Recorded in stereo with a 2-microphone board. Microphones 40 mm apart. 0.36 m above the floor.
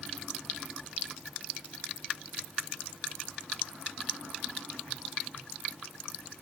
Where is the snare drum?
I don't hear a snare drum.